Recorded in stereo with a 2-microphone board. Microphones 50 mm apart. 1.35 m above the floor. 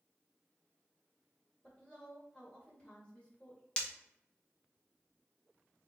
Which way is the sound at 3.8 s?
25° left (ahead or behind).